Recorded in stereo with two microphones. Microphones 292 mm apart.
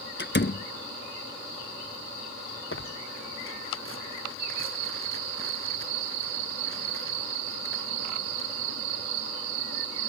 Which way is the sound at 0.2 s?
40° left (ahead or behind).